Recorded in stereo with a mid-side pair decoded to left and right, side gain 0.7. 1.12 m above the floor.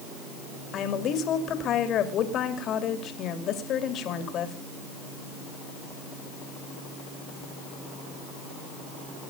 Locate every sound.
0.7 s a woman speaking: 45° left, 3 m